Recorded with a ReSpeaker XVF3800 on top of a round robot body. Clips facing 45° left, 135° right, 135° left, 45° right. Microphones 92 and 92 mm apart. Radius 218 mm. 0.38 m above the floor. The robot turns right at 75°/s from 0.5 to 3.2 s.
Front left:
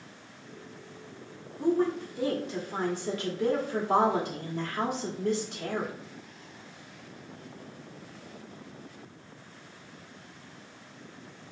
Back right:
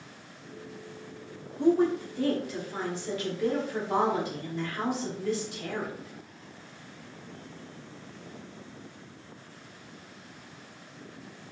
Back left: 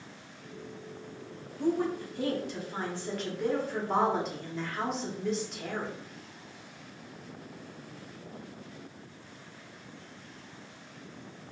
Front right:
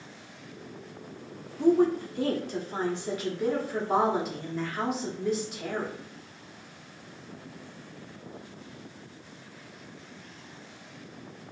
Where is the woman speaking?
80° right, 1.7 m; by 5.9 s 40° left, 1.7 m.